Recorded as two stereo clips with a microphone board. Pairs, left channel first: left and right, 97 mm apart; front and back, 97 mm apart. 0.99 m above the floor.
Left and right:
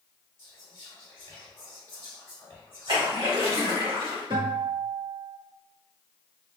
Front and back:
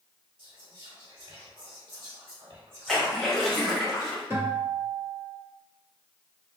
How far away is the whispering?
About 1.2 m.